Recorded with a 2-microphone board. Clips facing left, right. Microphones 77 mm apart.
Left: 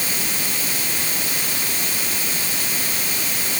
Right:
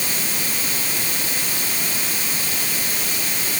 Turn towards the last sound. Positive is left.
No sound to turn to.